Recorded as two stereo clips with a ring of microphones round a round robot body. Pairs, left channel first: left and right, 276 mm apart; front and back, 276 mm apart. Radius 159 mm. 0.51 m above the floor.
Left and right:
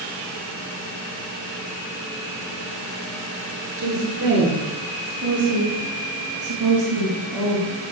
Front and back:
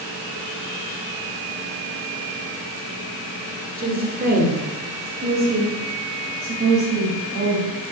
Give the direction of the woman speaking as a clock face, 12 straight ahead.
4 o'clock.